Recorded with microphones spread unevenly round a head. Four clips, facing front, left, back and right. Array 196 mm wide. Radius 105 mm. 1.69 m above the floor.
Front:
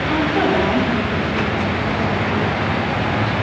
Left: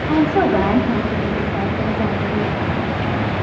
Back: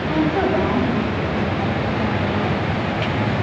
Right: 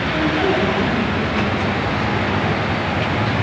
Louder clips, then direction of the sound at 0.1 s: Left 4 dB, front 1 dB; 75° left.